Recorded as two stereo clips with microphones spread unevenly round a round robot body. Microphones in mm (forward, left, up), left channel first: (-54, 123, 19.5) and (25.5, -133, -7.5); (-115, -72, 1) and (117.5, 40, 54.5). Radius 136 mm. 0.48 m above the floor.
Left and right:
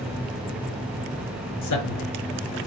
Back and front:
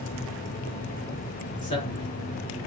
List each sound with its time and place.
1.6 s a man speaking: 130° left, 5.5 m